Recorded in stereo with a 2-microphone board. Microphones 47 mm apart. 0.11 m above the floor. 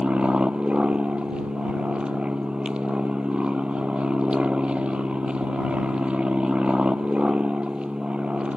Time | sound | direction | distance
0.0 | an aircraft | 20° right (ahead or behind) | ?